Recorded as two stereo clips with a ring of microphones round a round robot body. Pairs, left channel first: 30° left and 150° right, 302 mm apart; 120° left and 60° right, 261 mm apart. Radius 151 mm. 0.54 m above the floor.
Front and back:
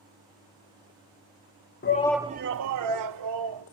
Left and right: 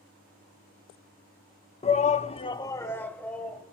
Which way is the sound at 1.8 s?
65° left.